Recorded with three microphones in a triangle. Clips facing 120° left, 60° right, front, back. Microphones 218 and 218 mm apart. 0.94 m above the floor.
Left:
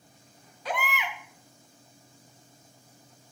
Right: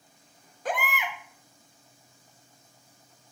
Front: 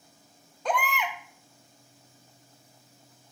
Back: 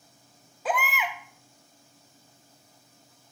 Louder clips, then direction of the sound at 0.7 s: Right 1 dB, even; 95° right.